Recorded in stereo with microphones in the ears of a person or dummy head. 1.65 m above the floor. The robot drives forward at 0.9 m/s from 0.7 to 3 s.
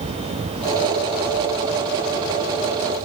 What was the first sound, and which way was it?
Only background noise.